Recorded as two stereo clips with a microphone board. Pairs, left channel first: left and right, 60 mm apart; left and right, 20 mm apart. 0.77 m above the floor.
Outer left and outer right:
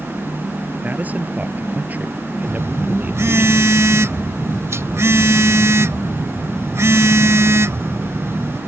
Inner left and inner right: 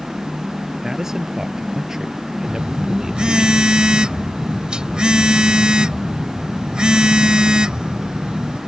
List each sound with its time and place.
0.8 s a man speaking: 30° right (ahead or behind)
2.4 s a phone buzzing: 55° right (ahead or behind)